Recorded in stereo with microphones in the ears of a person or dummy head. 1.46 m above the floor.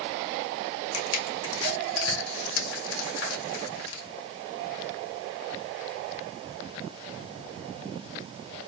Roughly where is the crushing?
Left.